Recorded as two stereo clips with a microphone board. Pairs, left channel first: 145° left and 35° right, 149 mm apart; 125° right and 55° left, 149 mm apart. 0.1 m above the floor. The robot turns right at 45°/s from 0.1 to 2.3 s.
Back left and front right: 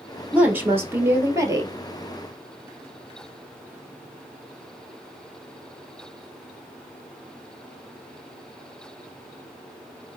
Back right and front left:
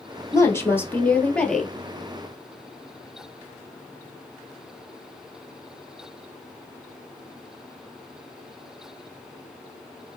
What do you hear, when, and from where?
0.3 s a woman speaking: 100° right, 1.1 m; by 1.7 s 35° right, 1.1 m